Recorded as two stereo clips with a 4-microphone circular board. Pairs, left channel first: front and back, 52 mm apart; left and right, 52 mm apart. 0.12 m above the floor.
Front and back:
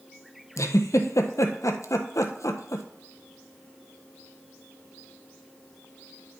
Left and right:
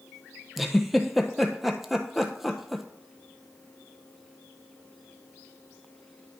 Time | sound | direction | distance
0.6 | a giggle | 5° right | 0.8 m